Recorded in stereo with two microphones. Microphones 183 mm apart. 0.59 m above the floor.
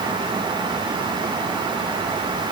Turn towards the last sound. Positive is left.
No sound to turn to.